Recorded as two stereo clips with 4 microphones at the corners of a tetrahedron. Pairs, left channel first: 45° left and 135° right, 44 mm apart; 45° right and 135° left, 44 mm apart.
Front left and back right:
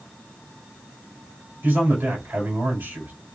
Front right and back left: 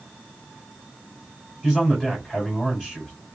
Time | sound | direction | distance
1.6 | a man speaking | 135° right | 3 m